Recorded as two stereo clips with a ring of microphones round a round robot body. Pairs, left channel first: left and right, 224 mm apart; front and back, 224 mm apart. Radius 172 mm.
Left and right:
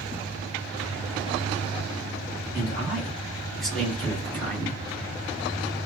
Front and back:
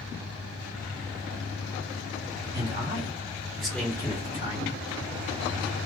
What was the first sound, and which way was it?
A man speaking, 165° right.